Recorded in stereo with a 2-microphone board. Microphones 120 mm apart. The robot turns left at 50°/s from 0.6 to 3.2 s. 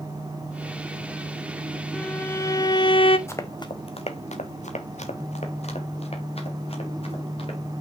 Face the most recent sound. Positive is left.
turn(degrees=55)  # may be behind; listen again after turning